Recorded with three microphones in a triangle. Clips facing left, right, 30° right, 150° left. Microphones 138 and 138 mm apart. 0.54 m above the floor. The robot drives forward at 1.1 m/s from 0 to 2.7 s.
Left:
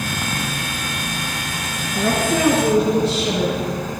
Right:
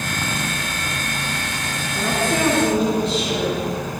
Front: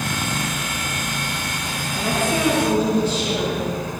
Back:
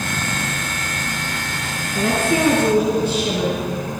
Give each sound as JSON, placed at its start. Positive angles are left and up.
{"t": 1.9, "sound": "a woman speaking", "azimuth_deg": 175, "distance_m": 6.0}